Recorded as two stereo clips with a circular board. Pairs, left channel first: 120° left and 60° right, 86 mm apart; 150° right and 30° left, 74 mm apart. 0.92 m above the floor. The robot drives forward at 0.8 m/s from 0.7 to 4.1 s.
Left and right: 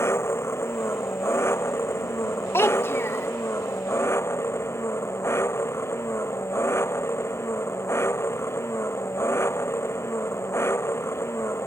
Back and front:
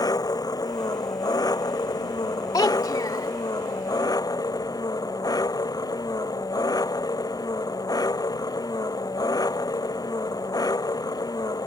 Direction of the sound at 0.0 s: Straight behind.